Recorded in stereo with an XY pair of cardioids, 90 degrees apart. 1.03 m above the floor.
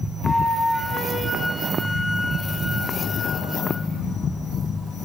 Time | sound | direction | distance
0.2 | a flute | 15° left | 3.5 m